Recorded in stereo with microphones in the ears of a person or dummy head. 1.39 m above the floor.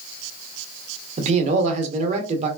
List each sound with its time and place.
1.2 s a man speaking: 35° right (ahead or behind), 0.8 m